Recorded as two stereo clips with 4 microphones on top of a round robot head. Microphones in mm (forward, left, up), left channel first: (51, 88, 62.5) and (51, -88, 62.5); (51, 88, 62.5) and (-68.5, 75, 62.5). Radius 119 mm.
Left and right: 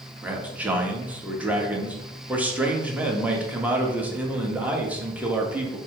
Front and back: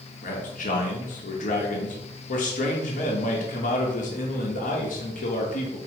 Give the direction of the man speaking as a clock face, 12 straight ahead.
12 o'clock.